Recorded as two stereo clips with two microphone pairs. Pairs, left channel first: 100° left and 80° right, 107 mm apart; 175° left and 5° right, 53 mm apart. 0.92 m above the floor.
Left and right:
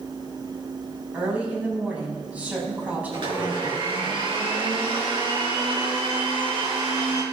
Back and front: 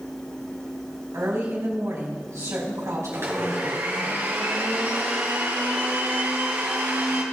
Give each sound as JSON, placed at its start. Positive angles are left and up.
{"t": 1.1, "sound": "a woman speaking", "azimuth_deg": 0, "distance_m": 5.5}
{"t": 3.1, "sound": "a blender", "azimuth_deg": -40, "distance_m": 5.0}